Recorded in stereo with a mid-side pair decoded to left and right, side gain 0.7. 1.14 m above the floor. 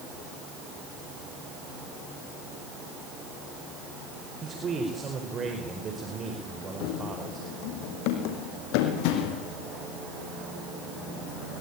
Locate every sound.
4.4 s a man speaking: 30° right, 4.5 m
6.8 s running footsteps: 70° left, 4 m